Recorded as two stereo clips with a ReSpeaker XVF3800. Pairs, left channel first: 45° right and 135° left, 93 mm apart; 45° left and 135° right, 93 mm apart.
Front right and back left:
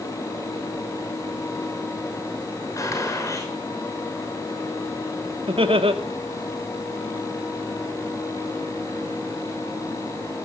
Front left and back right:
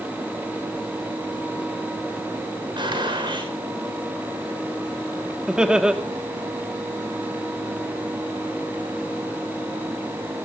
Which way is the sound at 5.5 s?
145° left.